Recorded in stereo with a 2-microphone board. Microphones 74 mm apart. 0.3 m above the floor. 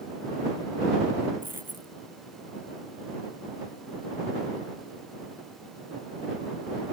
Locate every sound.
1.4 s a dropped coin: 25° right (ahead or behind)